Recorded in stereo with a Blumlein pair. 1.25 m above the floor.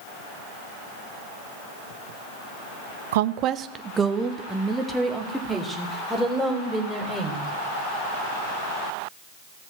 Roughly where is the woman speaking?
Ahead right.